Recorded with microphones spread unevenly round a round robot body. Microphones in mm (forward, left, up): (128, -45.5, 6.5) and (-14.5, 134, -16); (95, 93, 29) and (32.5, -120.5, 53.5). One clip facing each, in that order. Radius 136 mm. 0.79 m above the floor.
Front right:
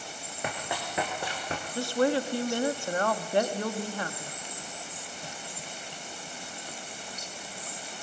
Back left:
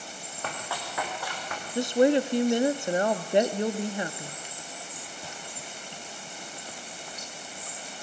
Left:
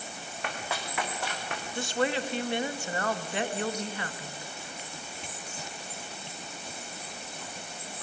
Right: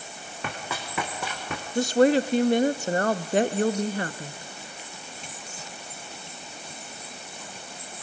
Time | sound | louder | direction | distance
0.4 | running footsteps | front right 2 dB, right 1 dB | 130° right | 3.5 m
1.8 | a woman speaking | back left 5 dB, right 10 dB | 160° right | 0.7 m